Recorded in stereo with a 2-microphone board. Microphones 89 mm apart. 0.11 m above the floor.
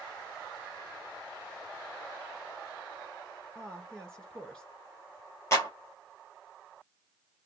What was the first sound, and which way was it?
A woman speaking, 10° left (ahead or behind).